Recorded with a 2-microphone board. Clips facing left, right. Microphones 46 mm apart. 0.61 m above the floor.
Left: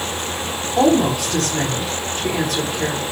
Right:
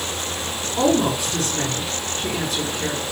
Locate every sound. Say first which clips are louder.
0.8 s a woman speaking: left 3 dB; 65° left (ahead or behind), 4 m